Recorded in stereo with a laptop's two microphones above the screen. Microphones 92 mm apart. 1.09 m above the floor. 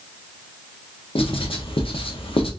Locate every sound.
1.1 s writing: 80° left, 0.7 m